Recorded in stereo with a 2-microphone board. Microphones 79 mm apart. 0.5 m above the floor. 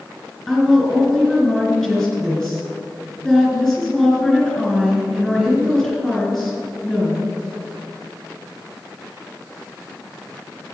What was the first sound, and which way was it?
A woman speaking, 10° left (ahead or behind).